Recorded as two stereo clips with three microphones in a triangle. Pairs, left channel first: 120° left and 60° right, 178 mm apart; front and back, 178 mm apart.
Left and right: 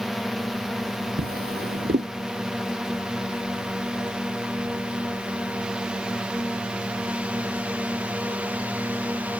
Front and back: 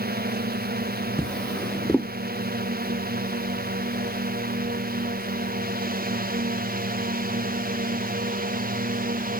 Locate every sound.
0.0 s a drone: 150° right; by 9.4 s 140° right
1.2 s a drawer: 85° right